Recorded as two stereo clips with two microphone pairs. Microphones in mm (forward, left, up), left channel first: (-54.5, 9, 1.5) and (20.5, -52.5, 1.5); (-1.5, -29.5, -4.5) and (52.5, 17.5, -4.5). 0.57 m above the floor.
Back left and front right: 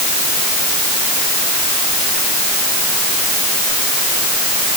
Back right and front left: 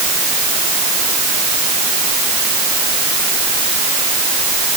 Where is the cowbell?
No cowbell in this recording.